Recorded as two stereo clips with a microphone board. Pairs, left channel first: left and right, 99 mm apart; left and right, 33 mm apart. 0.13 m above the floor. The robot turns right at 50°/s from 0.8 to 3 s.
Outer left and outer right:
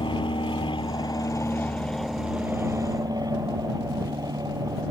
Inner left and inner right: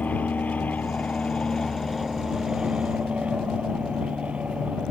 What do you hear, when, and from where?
0.0 s an aircraft: 115° left; by 4.9 s 135° right